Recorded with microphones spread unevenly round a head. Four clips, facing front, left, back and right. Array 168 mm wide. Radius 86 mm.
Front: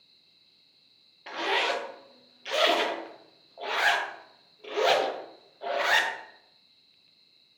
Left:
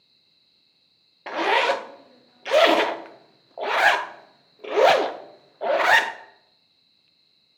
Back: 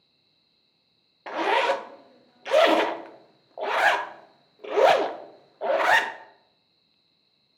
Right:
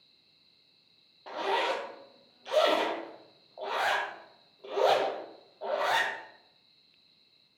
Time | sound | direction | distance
1.3 | a zipper | 95° left | 0.6 m